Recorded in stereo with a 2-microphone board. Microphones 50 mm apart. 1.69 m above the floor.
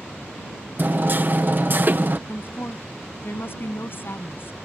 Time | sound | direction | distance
0.8 | hammering | 45° right (ahead or behind) | ?
2.3 | a woman speaking | 50° left (ahead or behind) | ?